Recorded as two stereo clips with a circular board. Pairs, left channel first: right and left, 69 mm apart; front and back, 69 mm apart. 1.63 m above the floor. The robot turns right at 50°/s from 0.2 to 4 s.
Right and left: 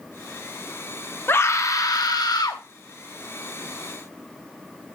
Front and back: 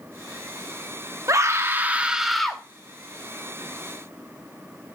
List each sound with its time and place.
1.3 s a scream: 145° right, 1.0 m; by 2.6 s 80° right, 1.0 m